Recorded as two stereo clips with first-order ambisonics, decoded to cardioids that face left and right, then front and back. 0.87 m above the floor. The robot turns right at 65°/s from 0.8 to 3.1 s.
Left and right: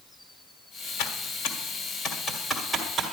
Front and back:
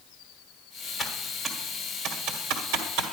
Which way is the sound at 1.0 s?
70° left.